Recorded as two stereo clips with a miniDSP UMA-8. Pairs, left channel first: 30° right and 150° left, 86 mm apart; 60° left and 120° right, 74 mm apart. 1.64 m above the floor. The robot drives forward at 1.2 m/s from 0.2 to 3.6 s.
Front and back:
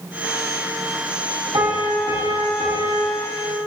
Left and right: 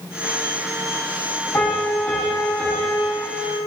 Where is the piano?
120° left, 2.5 m; by 3.6 s 150° left, 4 m.